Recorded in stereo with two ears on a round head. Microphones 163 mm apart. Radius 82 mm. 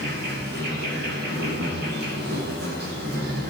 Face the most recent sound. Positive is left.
turn(degrees=-55)  # may be behind; listen again after turning